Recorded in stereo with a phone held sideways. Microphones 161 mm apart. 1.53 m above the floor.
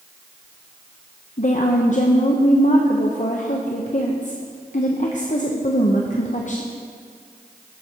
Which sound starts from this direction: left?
A woman speaking, at 1.4 s.